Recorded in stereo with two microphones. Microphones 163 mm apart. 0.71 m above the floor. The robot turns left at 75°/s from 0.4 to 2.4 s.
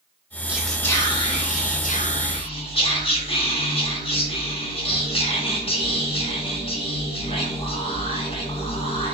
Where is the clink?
No clink in this recording.